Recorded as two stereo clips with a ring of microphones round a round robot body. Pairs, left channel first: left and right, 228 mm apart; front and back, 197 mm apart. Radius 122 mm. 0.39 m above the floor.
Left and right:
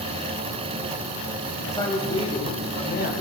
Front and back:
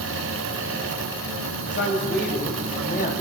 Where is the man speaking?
15° left, 3 m; by 3.1 s 45° left, 3 m.